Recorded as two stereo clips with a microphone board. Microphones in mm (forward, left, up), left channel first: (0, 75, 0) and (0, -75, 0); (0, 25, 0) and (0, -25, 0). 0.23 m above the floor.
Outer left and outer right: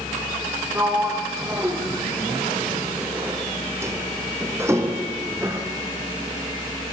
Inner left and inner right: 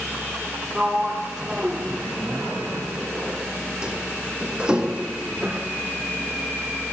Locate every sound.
0.8 s a sliding door: 15° right (ahead or behind), 3 m